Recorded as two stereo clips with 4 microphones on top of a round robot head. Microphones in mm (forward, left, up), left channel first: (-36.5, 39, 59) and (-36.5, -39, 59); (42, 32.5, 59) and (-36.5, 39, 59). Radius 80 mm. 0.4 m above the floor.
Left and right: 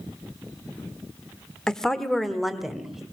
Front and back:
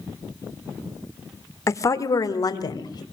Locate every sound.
1.7 s a woman speaking: 10° left, 1.4 m; by 3.0 s 5° right, 2.0 m